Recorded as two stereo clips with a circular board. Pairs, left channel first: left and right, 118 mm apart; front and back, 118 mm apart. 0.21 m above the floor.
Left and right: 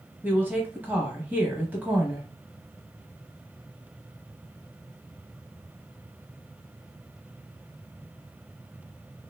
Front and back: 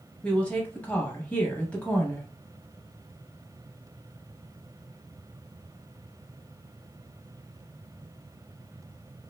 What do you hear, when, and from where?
0.2 s a woman speaking: 55° right, 1.0 m